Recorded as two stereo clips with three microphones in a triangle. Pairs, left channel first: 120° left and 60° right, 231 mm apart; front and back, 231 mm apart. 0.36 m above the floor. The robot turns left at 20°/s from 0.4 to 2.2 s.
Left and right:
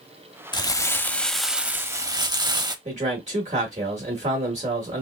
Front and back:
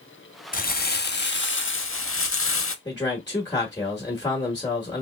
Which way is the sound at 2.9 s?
55° right.